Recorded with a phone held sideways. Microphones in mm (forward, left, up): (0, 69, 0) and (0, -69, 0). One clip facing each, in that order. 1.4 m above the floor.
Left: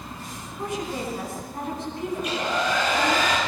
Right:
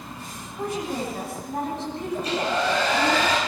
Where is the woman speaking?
75° right (ahead or behind), 10 m.